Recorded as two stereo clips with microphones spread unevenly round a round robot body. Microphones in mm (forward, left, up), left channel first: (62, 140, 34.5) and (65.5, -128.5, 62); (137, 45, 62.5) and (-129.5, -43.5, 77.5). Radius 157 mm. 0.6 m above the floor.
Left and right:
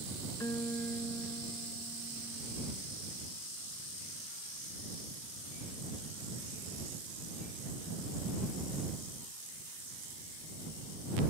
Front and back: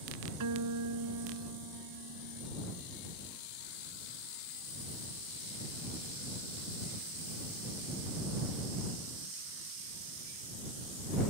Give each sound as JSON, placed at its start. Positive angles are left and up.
{"t": 0.4, "sound": "a guitar", "azimuth_deg": 175}